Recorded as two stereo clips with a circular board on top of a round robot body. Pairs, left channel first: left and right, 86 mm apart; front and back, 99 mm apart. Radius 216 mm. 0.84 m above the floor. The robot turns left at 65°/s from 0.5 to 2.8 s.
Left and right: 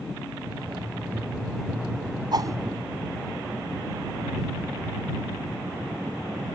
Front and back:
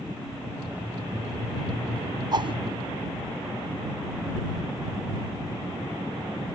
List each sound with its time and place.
2.3 s a whoosh: 130° right; by 2.6 s 150° right